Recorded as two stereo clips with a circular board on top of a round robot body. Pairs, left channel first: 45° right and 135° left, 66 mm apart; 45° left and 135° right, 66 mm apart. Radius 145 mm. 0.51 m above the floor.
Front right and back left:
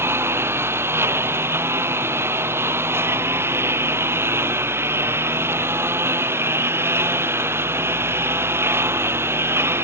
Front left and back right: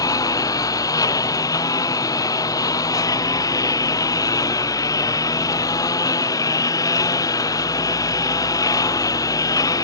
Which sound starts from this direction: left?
A lawn mower, at 0.0 s.